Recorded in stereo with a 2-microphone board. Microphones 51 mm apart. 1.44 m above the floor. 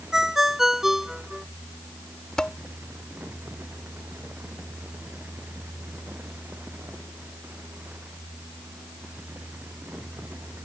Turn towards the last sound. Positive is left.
turn(degrees=15)  # may be behind; listen again after turning